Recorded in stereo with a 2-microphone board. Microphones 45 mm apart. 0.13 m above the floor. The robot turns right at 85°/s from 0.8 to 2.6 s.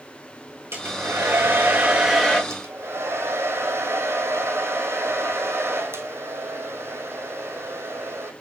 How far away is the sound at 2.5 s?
About 1.1 m.